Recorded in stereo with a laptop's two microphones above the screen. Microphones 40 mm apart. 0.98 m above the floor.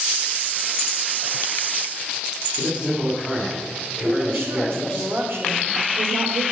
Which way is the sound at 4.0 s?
75° right (ahead or behind).